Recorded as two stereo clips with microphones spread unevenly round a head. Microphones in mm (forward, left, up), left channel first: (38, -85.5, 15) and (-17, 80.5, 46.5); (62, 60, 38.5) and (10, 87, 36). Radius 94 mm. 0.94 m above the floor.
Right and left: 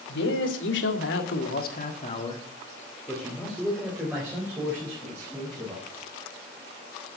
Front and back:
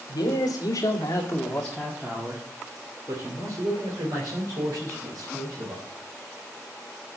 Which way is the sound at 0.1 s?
60° right.